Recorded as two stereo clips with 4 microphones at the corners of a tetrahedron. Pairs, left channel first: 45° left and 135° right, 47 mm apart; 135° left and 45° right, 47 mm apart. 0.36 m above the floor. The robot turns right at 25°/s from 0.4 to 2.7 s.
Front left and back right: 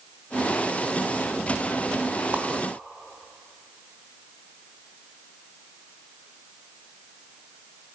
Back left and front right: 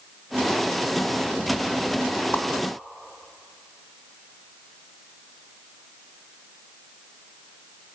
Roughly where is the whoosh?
Behind.